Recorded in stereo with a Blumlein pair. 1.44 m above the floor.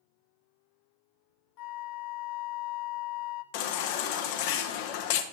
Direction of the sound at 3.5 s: 45° left.